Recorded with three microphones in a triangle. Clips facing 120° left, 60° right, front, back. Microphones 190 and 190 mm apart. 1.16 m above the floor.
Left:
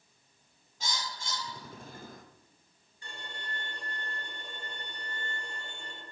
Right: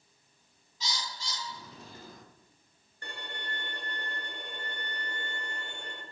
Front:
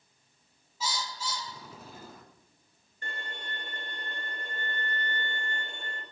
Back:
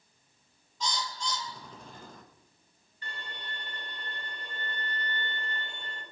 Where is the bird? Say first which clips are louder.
Left 1 dB, back 1 dB; 85° left, 0.9 m.